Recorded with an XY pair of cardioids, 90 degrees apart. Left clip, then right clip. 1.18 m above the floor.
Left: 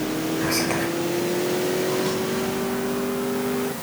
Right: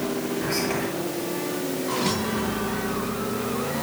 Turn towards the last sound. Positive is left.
turn(degrees=50)